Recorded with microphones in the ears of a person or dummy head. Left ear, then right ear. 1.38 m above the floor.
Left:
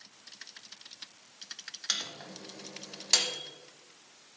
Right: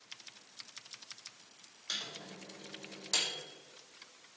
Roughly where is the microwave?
Left.